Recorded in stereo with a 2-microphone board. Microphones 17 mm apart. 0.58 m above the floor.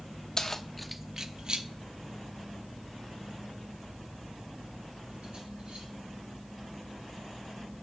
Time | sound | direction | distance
0.4 | keys jangling | 40° left (ahead or behind) | 0.6 m